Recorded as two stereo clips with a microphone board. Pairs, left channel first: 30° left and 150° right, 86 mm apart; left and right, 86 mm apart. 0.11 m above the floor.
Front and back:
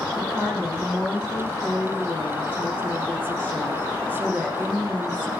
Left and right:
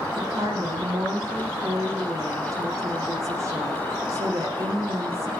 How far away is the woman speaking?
About 6 m.